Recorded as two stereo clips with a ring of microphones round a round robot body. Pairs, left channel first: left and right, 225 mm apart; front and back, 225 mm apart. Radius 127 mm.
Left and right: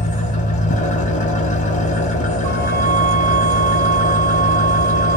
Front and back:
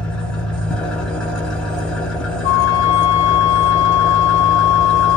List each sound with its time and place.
0.0 s an engine running: 85° left, 0.7 m
2.4 s a flute: 35° right, 0.8 m